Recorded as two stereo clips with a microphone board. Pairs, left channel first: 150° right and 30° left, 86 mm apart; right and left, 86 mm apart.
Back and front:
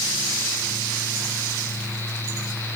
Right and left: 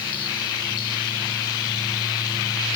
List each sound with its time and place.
Only background noise.